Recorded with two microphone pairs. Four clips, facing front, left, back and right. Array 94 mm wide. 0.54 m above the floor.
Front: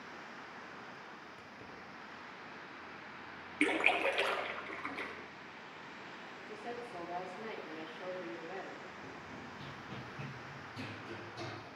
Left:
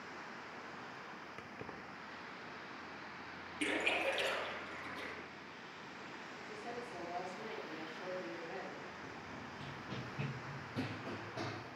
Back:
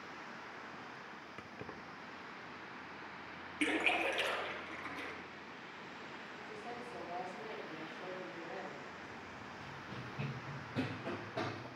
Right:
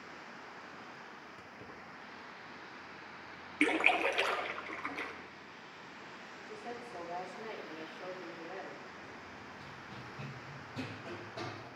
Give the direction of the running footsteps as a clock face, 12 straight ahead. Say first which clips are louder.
Left 1 dB, front 1 dB; 11 o'clock.